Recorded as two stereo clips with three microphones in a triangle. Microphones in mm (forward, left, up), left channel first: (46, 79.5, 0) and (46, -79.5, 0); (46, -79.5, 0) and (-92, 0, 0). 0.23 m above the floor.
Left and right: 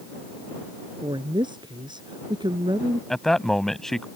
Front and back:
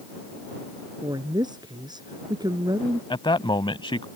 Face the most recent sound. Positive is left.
turn(degrees=5)